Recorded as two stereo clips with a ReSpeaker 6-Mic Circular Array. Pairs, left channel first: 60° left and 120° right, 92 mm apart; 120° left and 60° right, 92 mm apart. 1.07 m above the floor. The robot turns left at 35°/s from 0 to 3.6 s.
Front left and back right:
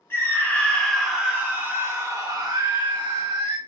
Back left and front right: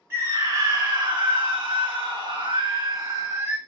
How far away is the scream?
About 1.1 m.